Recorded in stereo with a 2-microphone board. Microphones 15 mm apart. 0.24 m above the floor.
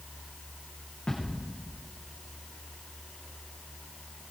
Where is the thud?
70° left (ahead or behind), 8.5 m.